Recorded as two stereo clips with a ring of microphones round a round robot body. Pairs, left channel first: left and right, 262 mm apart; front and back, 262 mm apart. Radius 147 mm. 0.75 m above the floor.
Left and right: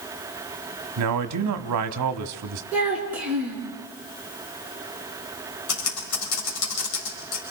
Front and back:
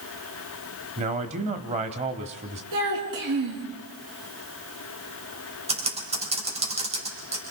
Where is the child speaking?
175° right, 6 m.